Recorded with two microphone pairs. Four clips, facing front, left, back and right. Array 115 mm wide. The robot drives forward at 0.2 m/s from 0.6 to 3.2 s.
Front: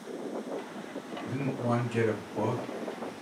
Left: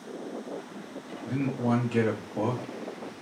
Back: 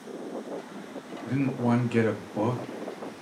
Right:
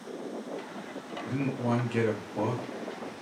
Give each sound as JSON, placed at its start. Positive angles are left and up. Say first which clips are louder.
{"t": 1.3, "sound": "a man speaking", "louder": "left 2 dB, back 5 dB", "azimuth_deg": 180, "distance_m": 0.7}